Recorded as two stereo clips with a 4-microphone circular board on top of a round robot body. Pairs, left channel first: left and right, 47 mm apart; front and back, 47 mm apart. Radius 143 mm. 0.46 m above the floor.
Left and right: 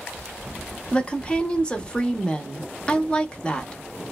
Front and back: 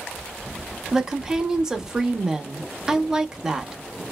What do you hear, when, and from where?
0.9 s a woman speaking: 120° left, 0.7 m